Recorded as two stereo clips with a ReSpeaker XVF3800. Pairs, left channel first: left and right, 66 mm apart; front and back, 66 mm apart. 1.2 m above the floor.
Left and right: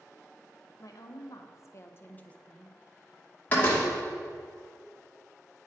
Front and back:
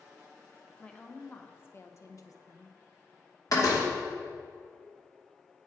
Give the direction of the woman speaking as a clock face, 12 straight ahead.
10 o'clock.